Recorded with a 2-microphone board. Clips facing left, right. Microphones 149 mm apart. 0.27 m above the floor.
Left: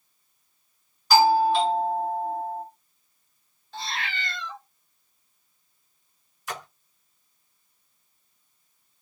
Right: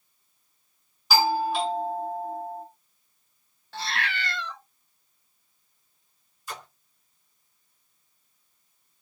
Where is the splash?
80° left, 0.7 m.